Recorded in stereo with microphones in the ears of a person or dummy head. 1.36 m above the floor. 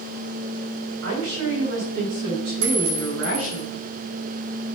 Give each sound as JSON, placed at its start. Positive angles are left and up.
{"t": 1.0, "sound": "a woman speaking", "side_deg": -85, "distance_m": 4.5}
{"t": 2.6, "sound": "a clink", "side_deg": -70, "distance_m": 2.0}